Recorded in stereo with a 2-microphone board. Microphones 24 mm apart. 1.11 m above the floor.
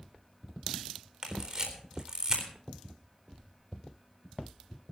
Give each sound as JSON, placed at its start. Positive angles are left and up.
{"t": 1.2, "sound": "a camera shutter", "side_deg": -30, "distance_m": 4.0}